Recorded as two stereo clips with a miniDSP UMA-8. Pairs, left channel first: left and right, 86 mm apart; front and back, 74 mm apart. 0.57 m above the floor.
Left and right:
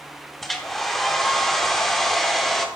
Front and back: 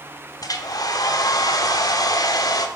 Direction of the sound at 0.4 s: 5° left.